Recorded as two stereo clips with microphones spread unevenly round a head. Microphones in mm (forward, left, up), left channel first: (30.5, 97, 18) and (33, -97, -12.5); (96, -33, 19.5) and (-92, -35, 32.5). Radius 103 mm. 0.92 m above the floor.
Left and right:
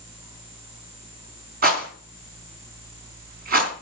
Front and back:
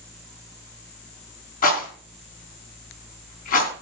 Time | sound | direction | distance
1.6 | a rattle | 45° right | 3.5 m